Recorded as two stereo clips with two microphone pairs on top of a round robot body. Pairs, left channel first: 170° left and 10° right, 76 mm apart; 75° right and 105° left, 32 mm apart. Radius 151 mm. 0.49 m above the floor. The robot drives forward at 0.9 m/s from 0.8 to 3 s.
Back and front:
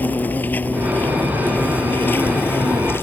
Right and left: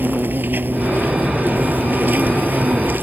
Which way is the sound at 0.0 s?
100° left.